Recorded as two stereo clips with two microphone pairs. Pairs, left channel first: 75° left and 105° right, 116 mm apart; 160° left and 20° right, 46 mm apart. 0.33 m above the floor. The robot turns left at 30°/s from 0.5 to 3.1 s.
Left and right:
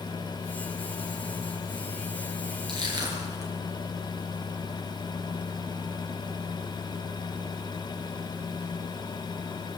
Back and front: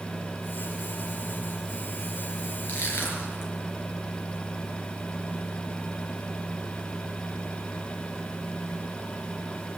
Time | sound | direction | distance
2.7 | crushing | 150° right | 4 m